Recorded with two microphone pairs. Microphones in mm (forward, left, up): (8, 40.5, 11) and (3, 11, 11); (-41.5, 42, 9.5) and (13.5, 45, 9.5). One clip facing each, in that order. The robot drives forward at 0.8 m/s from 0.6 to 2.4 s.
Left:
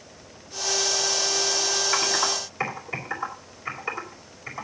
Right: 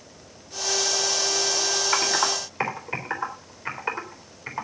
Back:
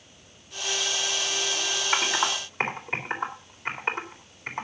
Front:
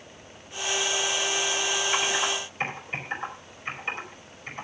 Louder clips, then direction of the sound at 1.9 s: Right 3 dB, back 5 dB; 140° right.